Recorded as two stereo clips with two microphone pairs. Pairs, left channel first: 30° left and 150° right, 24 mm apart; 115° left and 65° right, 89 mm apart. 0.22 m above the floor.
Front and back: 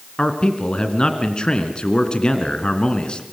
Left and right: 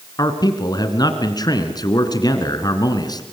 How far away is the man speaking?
About 2.5 m.